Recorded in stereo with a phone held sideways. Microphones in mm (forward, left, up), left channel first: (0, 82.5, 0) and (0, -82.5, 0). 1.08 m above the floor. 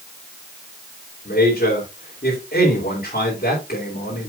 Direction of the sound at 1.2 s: 65° left (ahead or behind).